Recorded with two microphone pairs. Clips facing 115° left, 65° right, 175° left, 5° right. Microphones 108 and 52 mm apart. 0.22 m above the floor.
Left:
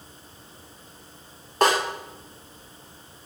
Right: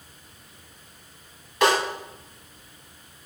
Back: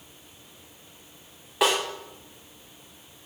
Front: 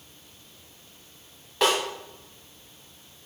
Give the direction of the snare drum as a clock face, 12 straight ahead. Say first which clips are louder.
Even, even; 9 o'clock.